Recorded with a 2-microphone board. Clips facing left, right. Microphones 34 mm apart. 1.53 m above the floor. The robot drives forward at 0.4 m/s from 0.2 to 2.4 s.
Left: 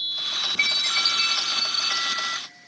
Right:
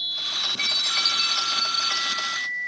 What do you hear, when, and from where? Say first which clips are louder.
0.6 s a chime: left 3 dB; 40° left (ahead or behind), 0.8 m